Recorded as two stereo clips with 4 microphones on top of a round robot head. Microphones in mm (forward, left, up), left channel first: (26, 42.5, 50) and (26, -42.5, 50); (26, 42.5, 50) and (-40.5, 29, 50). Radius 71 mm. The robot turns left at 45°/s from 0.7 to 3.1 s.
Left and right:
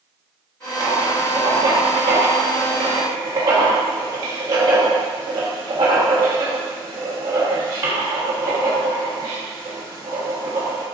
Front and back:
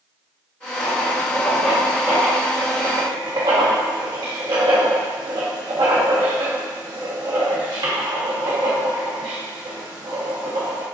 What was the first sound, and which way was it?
Writing, 35° right.